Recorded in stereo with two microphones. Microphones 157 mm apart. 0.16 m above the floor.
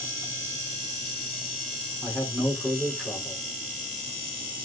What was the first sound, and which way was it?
A man speaking, centre (ahead or behind).